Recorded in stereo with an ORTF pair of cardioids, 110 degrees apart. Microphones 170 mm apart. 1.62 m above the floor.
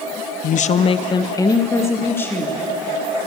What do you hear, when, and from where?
0.4 s a woman speaking: 60° left, 0.8 m; by 2.6 s 10° left, 3.5 m